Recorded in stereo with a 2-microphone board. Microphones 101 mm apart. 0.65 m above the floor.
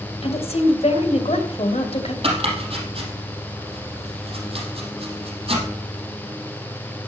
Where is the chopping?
65° right (ahead or behind), 5 m.